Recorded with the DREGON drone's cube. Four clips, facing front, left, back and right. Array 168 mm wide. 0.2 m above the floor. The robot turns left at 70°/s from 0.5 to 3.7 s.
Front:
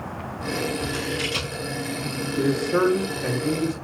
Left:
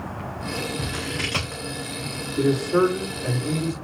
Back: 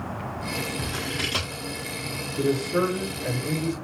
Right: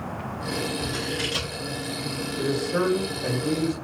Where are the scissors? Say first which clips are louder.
Right 1 dB, front 4 dB; 150° left, 7 m; by 1.6 s 90° left, 7 m.